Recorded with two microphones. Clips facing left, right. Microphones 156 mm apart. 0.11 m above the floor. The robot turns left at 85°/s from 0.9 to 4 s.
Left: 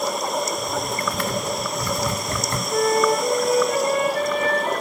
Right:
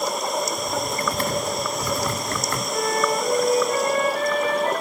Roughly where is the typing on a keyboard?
Right.